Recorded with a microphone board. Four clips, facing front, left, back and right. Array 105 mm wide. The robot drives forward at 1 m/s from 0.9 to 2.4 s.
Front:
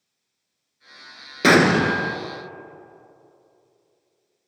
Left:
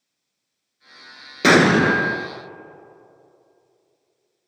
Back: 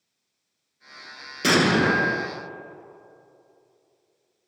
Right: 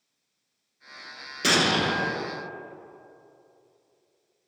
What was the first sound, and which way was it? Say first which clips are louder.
An explosion: left 10 dB, front 4 dB; 50° left.